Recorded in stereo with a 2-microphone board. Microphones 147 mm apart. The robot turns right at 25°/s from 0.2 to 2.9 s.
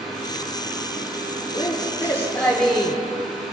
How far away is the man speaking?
About 1.8 m.